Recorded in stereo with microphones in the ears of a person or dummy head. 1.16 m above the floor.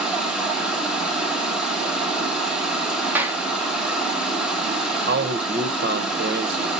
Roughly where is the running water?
Centre.